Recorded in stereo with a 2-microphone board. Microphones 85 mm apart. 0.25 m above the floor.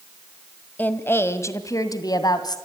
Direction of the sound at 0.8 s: 20° left (ahead or behind).